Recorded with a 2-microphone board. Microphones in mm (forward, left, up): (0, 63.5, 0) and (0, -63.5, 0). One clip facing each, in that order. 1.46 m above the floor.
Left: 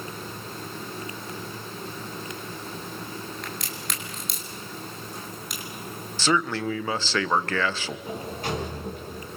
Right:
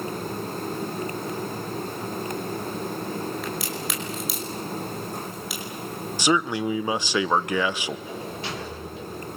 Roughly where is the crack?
Centre.